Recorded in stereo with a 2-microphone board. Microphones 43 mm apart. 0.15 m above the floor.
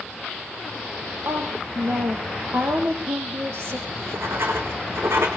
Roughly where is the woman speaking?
Right.